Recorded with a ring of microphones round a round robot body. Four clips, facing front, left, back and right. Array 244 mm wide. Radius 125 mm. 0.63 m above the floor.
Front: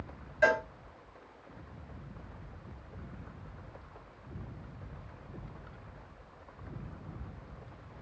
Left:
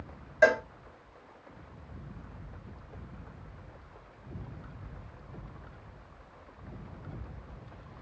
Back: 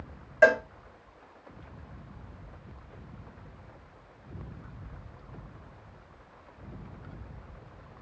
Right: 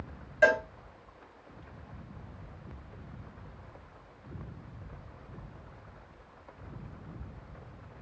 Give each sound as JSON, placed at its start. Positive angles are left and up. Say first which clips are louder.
{"t": 0.4, "sound": "a cowbell", "louder": "left 1 dB, back 6 dB", "azimuth_deg": 160, "distance_m": 0.7}